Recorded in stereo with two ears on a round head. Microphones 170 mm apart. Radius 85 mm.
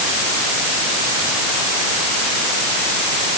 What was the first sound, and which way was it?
Only background noise.